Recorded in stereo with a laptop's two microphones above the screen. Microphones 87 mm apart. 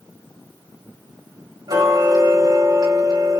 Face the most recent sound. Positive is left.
turn(degrees=-50)  # may be behind; listen again after turning